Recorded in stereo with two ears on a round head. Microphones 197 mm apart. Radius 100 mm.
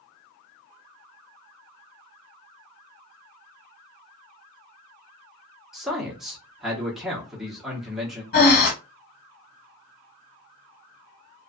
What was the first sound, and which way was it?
A man speaking, centre (ahead or behind).